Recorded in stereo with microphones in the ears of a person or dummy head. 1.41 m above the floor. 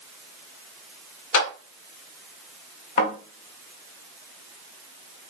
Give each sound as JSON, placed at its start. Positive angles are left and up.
{"t": 1.3, "sound": "a clap", "side_deg": 75, "distance_m": 2.0}
{"t": 3.0, "sound": "a thud", "side_deg": 65, "distance_m": 2.0}